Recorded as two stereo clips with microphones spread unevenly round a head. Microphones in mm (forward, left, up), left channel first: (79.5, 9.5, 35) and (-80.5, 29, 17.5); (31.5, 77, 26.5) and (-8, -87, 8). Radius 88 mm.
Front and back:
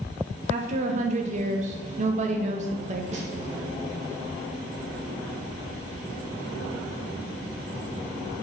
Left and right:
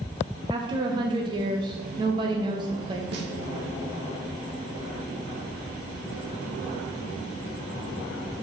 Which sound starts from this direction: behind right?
A snare drum, at 3.1 s.